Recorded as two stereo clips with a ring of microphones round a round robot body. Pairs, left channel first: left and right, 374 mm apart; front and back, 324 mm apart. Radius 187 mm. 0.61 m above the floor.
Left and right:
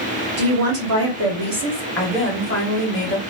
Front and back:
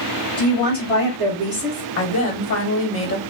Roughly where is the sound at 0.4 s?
Right.